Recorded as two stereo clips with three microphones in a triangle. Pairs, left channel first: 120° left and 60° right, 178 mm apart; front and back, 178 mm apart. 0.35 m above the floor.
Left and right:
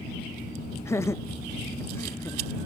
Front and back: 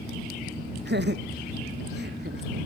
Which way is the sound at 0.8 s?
165° right.